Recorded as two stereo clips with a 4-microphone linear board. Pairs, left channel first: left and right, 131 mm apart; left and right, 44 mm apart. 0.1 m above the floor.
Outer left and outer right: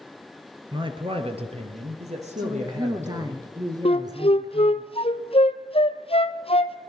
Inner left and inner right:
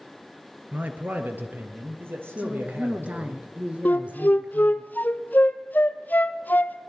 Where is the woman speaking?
30° right (ahead or behind), 1.3 m.